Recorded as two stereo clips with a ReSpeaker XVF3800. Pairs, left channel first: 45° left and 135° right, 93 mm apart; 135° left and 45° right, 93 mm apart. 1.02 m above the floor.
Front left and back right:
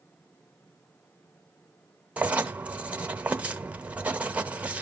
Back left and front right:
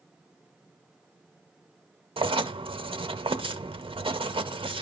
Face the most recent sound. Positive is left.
turn(degrees=-60)